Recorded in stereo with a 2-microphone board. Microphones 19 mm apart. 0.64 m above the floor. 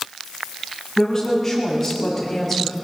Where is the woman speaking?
15° left (ahead or behind), 6.5 m; by 2.7 s centre (ahead or behind), 4.5 m.